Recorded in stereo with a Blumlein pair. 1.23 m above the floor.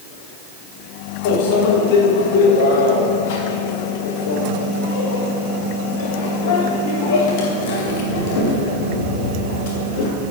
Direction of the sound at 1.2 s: 50° left.